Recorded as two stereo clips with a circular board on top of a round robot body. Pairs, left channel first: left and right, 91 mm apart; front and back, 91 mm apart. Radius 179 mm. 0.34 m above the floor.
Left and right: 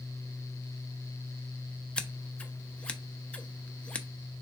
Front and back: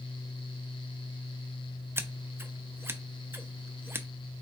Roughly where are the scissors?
Behind left.